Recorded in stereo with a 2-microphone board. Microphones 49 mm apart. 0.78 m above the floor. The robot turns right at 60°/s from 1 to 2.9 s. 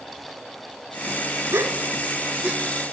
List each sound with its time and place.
1.5 s a gasp: 70° right (ahead or behind), 1.6 m; by 2.6 s 30° right (ahead or behind), 1.6 m